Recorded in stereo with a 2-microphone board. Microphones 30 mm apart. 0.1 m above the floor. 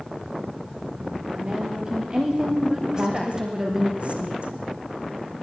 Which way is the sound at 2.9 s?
45° right (ahead or behind).